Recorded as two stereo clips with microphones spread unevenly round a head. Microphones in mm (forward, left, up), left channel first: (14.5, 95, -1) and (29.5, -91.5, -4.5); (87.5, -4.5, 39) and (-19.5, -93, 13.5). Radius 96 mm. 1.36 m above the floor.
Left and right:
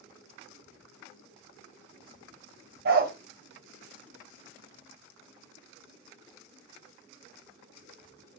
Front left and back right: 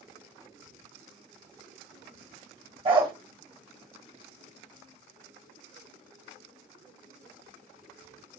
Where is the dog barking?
90° right, 1.0 m.